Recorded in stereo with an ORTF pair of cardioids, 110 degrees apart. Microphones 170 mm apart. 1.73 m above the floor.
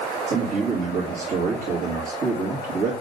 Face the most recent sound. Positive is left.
turn(degrees=-65)